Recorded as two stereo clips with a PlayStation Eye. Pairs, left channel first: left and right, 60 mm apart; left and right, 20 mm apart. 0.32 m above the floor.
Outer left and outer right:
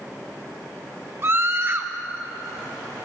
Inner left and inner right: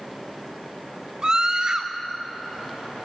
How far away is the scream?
About 1.4 m.